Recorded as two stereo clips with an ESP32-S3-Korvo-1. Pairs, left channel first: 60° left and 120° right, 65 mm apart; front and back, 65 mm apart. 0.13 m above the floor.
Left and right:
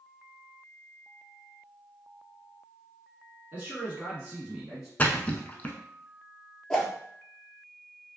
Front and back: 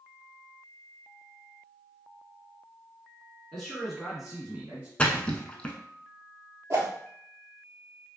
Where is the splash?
45° left, 0.5 m.